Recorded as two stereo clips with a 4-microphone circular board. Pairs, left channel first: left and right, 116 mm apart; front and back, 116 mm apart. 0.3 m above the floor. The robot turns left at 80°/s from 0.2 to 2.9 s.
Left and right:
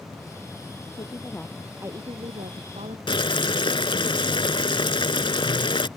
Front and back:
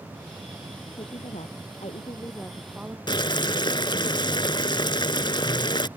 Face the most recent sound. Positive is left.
turn(degrees=45)